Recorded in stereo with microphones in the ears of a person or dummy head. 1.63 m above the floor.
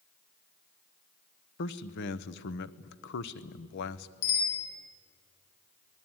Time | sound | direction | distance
1.6 | a man speaking | 70° left (ahead or behind) | 1.0 m
4.2 | a bicycle bell | 80° left | 8 m